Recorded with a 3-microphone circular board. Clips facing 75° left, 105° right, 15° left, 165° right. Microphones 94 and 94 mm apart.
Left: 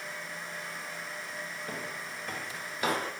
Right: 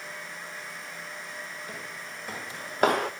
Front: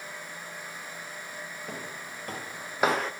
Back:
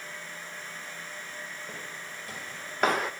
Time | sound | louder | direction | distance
1.7 | footsteps | left 1 dB, front 2 dB | 20° left | 0.8 m